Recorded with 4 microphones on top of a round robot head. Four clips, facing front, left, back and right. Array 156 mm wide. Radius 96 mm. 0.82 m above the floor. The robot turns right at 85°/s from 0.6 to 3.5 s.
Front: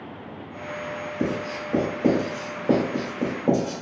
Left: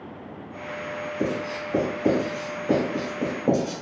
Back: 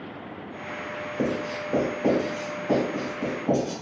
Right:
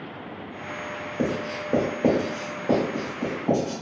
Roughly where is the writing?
Behind right.